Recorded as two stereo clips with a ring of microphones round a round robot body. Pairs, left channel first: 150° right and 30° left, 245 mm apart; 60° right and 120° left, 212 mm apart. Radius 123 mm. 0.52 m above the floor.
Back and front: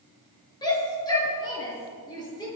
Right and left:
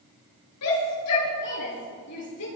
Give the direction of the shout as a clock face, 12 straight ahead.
2 o'clock.